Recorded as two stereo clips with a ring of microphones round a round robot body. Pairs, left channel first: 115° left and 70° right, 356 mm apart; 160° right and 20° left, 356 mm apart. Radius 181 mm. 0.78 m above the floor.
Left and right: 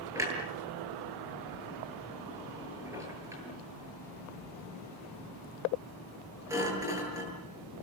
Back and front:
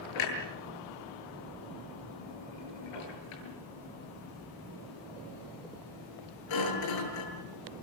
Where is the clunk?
150° right, 8.5 m.